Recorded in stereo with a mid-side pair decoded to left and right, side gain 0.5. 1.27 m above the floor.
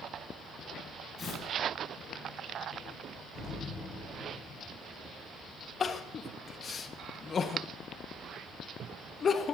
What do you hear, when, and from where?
1.2 s tearing paper: 35° left, 10 m
3.4 s an explosion: 55° left, 7.5 m
5.8 s crying: 40° left, 1.5 m